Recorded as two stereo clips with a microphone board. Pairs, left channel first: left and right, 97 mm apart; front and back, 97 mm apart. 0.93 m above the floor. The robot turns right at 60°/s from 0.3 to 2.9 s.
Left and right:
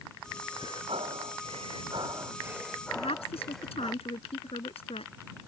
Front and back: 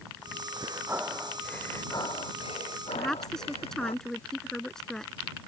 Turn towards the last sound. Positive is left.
turn(degrees=85)